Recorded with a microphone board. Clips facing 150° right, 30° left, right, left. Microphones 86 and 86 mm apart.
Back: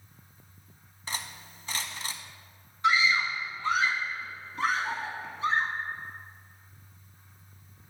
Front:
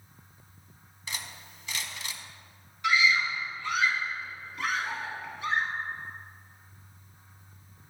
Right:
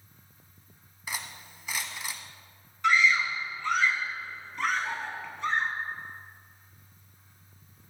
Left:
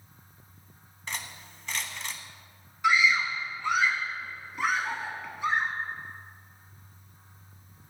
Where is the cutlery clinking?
165° right, 0.8 m.